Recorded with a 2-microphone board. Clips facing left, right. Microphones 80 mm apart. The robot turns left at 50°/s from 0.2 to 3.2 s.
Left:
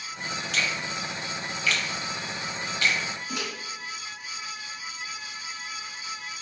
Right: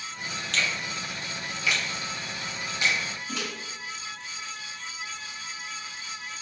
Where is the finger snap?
5° left (ahead or behind), 0.7 m; by 3.0 s 20° right (ahead or behind), 0.7 m.